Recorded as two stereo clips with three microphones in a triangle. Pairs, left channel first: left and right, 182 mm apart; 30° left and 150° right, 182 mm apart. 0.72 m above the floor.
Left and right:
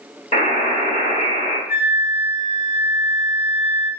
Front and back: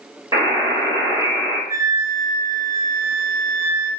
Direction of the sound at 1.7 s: 130° left.